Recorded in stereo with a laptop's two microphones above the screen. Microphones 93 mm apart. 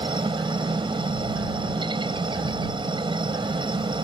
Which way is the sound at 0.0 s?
60° right (ahead or behind).